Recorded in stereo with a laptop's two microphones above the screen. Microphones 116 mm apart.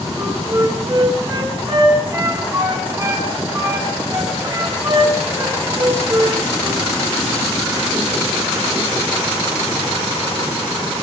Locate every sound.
0.2 s a flute: 30° right (ahead or behind), 3 m